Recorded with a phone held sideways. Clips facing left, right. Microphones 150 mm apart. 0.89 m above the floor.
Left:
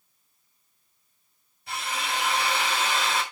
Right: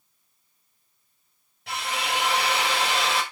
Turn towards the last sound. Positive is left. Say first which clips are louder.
# right 2 dB
turn(degrees=-80)